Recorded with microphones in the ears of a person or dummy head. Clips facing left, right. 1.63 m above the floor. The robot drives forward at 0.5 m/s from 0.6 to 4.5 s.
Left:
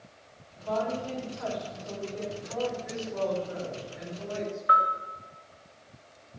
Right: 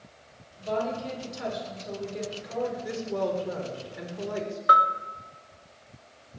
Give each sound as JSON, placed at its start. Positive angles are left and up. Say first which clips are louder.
{"t": 0.6, "sound": "a woman speaking", "louder": "right 1 dB", "side_deg": -30, "distance_m": 6.5}
{"t": 2.8, "sound": "a woman speaking", "louder": "right 2 dB", "side_deg": -75, "distance_m": 4.5}
{"t": 4.7, "sound": "a bell", "louder": "right 4 dB", "side_deg": -60, "distance_m": 1.5}